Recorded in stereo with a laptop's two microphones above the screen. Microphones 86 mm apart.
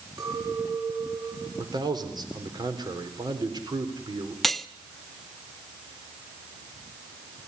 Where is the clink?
65° right (ahead or behind), 8.5 m.